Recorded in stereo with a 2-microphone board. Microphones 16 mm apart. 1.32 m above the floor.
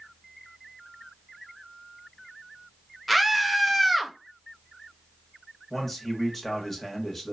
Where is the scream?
5° left (ahead or behind), 0.5 m.